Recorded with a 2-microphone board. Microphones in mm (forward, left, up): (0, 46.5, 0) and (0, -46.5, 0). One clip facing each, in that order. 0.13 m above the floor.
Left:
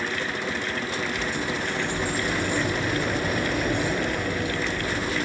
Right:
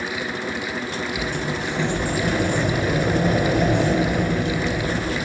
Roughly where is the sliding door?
Right.